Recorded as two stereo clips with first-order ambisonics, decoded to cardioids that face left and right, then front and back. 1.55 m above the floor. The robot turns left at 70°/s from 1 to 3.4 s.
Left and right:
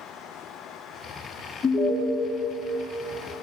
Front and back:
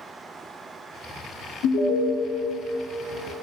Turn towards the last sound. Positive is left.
turn(degrees=-100)